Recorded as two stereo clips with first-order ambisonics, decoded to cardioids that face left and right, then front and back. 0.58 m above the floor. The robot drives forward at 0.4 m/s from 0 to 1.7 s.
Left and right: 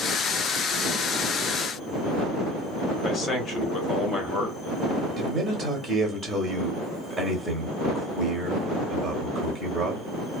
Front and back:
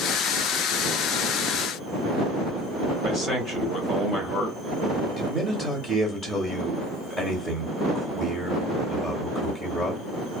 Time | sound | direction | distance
3.0 | a man speaking | 145° left | 0.8 m
5.2 | a man speaking | 120° right | 0.8 m